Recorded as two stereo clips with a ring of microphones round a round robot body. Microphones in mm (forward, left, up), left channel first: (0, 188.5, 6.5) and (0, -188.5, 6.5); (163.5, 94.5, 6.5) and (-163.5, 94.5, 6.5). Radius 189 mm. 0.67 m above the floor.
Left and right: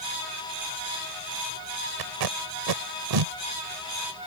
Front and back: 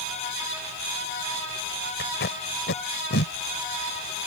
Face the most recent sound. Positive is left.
turn(degrees=-65)